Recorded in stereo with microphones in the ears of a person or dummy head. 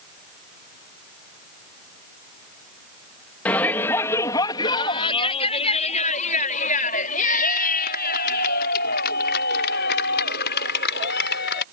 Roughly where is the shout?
Centre.